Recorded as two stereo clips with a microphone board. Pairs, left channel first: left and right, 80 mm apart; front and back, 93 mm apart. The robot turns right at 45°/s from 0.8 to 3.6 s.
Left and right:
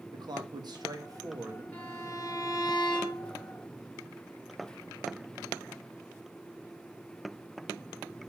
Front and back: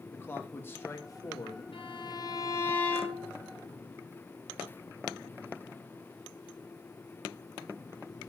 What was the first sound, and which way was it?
A man speaking, 65° right.